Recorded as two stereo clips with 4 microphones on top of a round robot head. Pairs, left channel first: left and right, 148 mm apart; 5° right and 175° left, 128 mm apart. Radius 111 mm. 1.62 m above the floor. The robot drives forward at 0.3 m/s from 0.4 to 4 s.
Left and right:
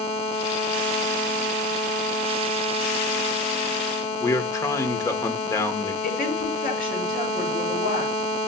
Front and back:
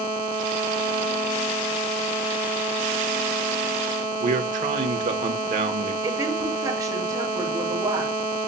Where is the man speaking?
155° left, 1.5 m.